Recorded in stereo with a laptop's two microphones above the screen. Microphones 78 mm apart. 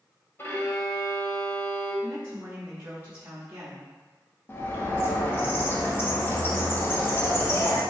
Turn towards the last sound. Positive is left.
turn(degrees=30)  # may be behind; listen again after turning